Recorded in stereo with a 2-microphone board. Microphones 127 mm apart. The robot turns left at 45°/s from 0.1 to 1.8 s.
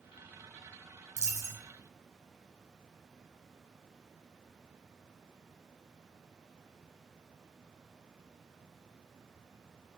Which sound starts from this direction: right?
A dropped coin, at 1.2 s.